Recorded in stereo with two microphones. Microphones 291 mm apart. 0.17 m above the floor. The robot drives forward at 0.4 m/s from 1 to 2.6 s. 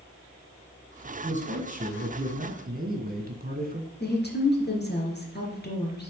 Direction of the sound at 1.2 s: 25° right (ahead or behind).